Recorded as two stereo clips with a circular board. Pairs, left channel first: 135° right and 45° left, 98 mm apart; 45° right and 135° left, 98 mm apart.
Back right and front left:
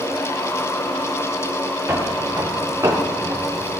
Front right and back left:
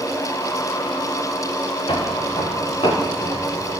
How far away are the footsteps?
About 3 m.